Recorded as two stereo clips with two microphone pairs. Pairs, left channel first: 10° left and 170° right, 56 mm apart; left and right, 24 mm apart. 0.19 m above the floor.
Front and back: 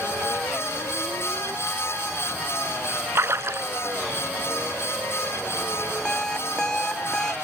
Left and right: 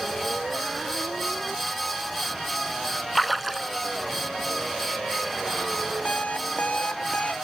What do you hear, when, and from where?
3.1 s a splash: 175° left
6.0 s an alarm clock: 85° left